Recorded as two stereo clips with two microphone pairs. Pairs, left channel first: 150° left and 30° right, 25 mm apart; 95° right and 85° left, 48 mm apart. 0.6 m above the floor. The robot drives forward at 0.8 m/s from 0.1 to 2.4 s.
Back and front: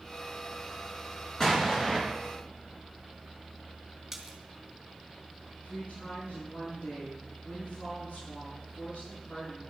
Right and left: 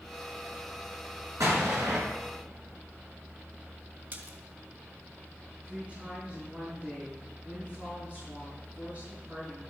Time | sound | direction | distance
1.4 | an explosion | 80° left | 5 m
4.1 | a splash | 50° left | 2.5 m
5.6 | a woman speaking | 145° left | 7 m